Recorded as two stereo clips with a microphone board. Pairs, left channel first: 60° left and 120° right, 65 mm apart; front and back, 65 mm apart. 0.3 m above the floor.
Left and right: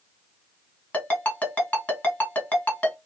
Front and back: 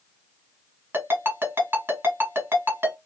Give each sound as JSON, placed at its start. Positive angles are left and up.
{"t": 0.9, "sound": "a ringtone", "azimuth_deg": 125, "distance_m": 1.5}